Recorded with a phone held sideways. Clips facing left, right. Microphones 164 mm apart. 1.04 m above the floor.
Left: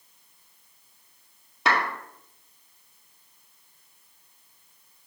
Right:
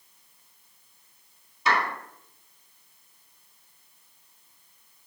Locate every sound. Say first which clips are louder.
1.6 s a clap: left 1 dB; 70° left (ahead or behind), 1.9 m